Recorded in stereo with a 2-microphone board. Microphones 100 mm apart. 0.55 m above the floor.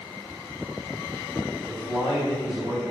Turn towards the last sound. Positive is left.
turn(degrees=-50)  # may be behind; listen again after turning